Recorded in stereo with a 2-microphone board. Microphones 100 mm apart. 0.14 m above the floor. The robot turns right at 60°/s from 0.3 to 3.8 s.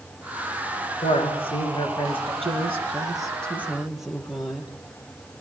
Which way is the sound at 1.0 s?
95° left.